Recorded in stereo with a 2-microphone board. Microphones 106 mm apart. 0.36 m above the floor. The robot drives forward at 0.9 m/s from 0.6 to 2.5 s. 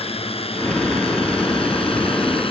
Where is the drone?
65° left (ahead or behind); by 2.5 s 60° left (ahead or behind).